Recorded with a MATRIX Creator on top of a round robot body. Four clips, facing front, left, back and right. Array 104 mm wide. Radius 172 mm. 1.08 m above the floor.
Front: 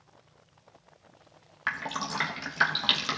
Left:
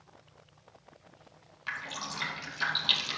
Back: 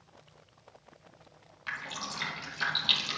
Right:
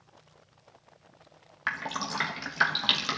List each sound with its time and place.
1.7 s dripping: 50° right, 1.3 m